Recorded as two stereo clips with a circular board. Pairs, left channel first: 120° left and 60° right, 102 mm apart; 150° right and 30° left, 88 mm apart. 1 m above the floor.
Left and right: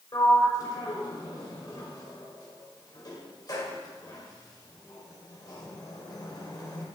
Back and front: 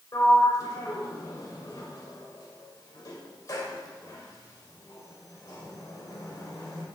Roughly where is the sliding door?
Behind.